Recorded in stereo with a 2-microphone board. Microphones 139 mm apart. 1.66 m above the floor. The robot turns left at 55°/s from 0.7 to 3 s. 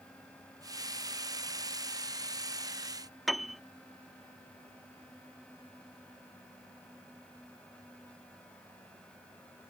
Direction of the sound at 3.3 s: Centre (ahead or behind).